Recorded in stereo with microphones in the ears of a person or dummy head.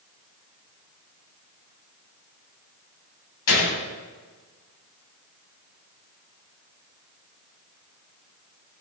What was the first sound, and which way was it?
A gunshot, 70° left (ahead or behind).